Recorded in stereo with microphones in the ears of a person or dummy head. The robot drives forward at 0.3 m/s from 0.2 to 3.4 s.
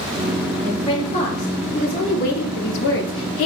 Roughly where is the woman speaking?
Left.